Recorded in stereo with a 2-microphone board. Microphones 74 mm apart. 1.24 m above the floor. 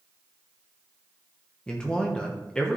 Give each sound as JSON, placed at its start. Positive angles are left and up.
{"t": 1.7, "sound": "a man speaking", "side_deg": 10, "distance_m": 1.1}